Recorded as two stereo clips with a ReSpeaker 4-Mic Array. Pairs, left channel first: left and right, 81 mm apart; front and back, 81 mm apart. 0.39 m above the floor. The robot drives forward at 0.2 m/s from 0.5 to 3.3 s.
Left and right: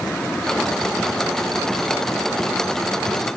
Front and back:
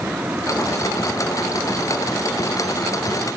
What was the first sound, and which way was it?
Only background noise.